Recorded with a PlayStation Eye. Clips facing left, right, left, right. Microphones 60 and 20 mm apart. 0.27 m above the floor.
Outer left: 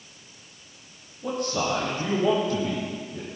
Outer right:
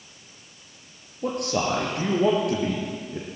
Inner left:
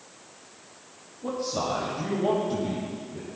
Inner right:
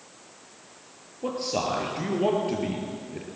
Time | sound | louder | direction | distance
1.2 | a man speaking | outer right 2 dB, inner right 1 dB | 75° right (ahead or behind) | 5 m